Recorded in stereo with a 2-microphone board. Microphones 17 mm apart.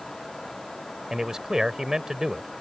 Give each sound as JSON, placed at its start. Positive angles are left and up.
{"t": 1.1, "sound": "a man speaking", "side_deg": -40}